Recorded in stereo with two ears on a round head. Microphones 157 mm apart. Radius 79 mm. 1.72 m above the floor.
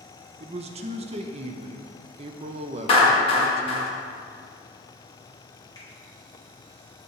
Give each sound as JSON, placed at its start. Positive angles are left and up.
{"t": 0.4, "sound": "a man speaking", "side_deg": -35, "distance_m": 0.5}
{"t": 2.9, "sound": "a clap", "side_deg": 35, "distance_m": 2.0}
{"t": 5.8, "sound": "a finger snap", "side_deg": 20, "distance_m": 2.0}